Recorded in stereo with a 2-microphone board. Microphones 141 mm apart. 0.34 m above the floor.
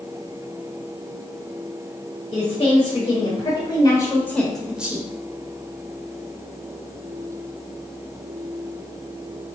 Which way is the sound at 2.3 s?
55° left (ahead or behind).